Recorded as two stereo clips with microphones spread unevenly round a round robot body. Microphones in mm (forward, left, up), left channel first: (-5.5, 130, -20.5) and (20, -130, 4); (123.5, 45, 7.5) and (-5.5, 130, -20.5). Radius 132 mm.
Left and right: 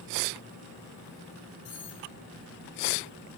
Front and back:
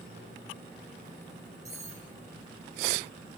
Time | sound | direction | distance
1.6 | cutlery clinking | 75° left | 6 m